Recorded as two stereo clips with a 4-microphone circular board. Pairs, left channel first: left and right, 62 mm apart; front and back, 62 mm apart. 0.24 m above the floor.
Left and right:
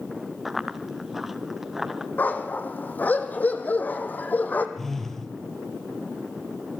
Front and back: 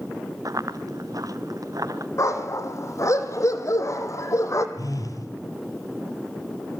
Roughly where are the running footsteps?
Behind.